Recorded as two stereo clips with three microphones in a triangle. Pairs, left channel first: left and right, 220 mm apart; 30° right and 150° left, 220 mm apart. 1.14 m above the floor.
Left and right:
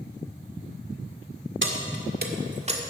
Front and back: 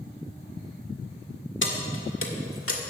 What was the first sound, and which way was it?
Keys jangling, 60° right.